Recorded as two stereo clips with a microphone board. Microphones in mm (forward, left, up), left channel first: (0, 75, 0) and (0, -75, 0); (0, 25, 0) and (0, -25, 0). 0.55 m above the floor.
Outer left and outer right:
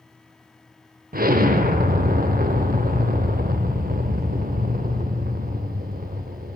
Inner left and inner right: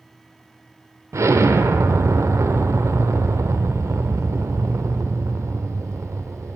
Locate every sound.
1.1 s an explosion: 80° right, 0.6 m